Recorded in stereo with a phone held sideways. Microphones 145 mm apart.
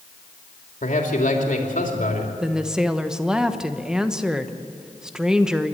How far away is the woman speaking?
About 1.1 m.